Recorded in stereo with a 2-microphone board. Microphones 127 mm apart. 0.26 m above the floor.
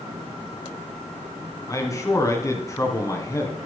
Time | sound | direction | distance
1.7 | a man speaking | 25° left (ahead or behind) | 2.5 m